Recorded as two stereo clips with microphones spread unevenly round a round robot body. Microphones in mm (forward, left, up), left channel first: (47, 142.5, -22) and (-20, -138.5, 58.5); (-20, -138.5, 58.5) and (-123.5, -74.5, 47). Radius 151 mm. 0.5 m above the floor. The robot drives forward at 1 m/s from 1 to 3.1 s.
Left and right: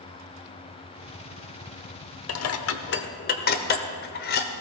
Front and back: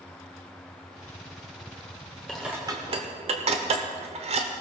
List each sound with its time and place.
2.3 s dishes clattering: 60° left, 0.8 m; by 4.5 s 125° left, 0.8 m